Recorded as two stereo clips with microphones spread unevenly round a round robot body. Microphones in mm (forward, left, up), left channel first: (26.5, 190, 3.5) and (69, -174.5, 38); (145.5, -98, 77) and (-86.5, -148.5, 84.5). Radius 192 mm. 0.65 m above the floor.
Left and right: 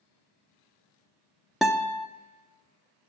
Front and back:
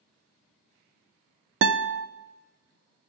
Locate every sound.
1.6 s a guitar: straight behind, 0.5 m